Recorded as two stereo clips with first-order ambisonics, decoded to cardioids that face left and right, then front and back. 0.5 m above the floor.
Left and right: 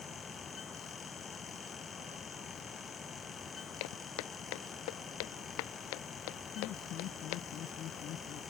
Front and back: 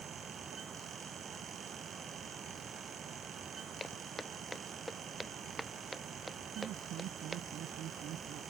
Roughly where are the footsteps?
Left.